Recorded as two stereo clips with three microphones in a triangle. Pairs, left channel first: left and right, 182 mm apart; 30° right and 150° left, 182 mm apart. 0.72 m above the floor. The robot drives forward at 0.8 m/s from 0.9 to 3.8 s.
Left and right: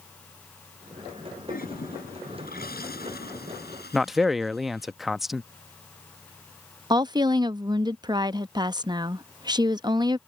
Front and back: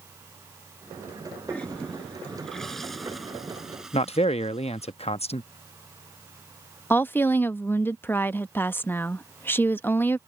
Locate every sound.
1.5 s a toilet flushing: 55° left; by 4.9 s 65° left
3.9 s a man speaking: straight ahead
6.9 s a woman speaking: 90° right